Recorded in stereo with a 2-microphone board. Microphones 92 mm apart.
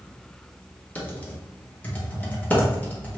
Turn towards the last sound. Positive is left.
turn(degrees=15)  # may be behind; listen again after turning